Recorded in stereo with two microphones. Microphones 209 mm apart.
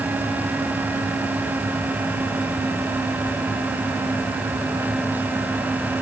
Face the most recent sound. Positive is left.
No sound to turn to.